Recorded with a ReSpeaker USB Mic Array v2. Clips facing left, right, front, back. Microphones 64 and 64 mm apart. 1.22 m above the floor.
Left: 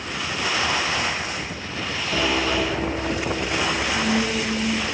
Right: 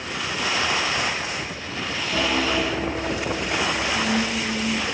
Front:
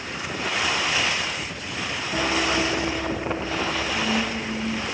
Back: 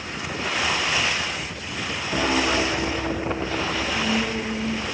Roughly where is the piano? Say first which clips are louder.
Even, back 2 dB; behind left.